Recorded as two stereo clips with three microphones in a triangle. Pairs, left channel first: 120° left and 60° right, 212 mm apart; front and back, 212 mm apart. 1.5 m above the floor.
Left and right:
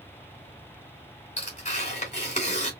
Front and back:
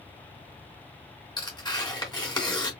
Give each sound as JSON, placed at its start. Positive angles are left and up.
{"t": 1.4, "sound": "tearing paper", "azimuth_deg": 70, "distance_m": 3.0}